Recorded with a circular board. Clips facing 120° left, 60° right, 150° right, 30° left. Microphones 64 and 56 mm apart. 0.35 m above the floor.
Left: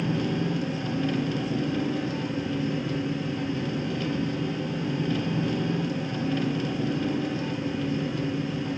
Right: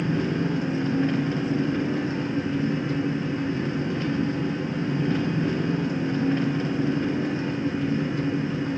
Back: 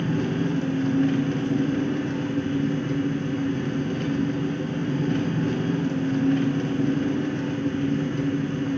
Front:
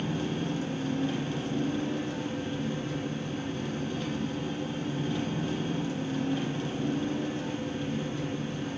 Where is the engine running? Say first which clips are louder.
Right 2 dB, back 7 dB; 120° right, 2.5 m.